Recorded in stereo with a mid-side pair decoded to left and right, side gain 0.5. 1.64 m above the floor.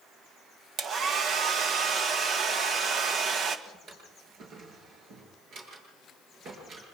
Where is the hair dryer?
55° right, 1.8 m.